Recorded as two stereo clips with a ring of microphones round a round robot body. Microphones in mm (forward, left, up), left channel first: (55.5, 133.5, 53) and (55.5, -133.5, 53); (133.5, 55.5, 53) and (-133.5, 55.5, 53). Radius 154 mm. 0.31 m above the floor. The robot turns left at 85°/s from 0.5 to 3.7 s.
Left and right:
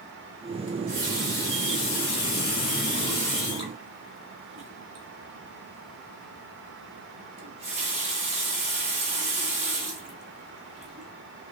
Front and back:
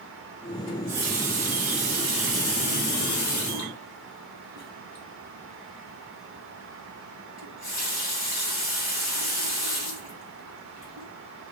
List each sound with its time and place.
0.7 s a running tap: 130° right, 2 m; by 11.1 s 25° right, 2 m